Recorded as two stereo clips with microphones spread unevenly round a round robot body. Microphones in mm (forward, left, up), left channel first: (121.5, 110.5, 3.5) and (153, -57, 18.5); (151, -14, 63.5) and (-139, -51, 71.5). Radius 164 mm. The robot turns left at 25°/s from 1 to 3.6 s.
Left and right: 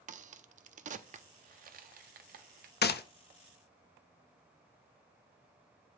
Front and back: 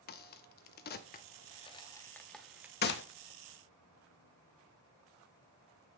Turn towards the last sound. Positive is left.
turn(degrees=50)